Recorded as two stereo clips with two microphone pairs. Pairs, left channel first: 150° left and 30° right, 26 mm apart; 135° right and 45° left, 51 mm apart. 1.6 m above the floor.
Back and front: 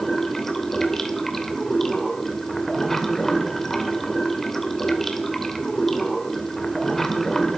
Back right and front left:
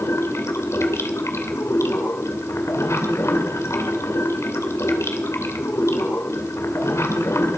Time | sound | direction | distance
0.0 | running water | 130° right | 2.5 m